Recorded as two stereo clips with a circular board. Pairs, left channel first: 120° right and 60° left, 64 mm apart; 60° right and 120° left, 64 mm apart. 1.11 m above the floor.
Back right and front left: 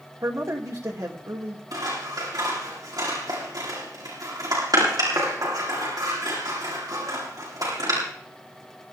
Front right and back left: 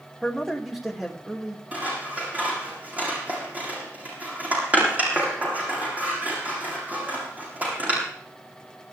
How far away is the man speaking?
About 3 m.